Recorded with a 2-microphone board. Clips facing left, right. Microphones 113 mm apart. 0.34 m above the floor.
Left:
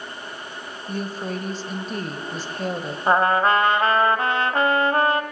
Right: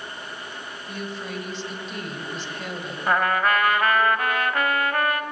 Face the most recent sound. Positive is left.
turn(degrees=30)  # may be behind; listen again after turning